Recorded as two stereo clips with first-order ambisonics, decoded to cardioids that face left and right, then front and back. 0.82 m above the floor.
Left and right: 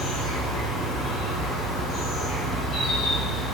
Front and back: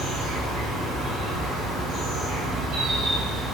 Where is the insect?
140° left, 1.3 m.